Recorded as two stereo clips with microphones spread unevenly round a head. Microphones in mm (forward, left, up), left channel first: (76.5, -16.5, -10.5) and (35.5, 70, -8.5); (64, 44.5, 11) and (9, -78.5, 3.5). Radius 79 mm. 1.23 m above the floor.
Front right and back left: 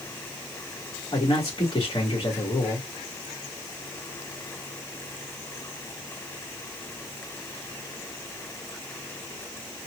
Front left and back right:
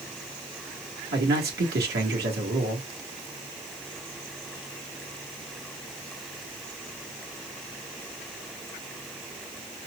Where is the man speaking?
130° right, 1.8 m.